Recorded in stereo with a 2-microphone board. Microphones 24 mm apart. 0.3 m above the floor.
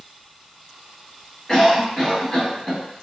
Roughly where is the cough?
Centre.